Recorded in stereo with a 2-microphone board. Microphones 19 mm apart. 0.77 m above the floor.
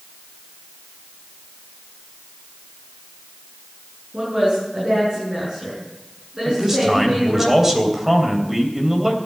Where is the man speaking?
20° right (ahead or behind), 3 m.